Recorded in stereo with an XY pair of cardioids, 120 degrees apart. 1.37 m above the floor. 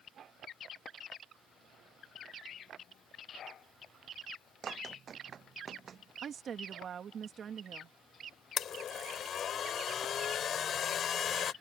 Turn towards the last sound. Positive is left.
turn(degrees=50)